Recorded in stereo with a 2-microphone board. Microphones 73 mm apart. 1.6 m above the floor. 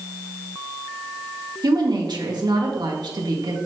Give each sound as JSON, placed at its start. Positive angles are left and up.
{"t": 1.6, "sound": "a woman speaking", "side_deg": -85, "distance_m": 1.9}